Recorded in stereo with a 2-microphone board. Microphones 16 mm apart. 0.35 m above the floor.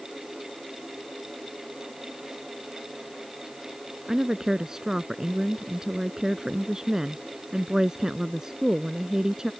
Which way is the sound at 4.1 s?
40° right (ahead or behind).